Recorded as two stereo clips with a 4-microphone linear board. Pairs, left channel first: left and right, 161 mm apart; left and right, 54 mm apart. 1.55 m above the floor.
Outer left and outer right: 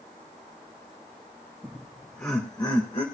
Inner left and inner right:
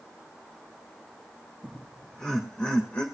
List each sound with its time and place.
1.6 s laughter: 10° right (ahead or behind), 2.5 m; by 3.0 s 40° left (ahead or behind), 1.8 m